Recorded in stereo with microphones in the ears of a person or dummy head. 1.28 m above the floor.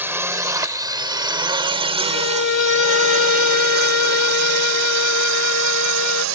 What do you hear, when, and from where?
0.0 s a drone: 15° right (ahead or behind); by 6.3 s 80° right
2.0 s a violin: 80° left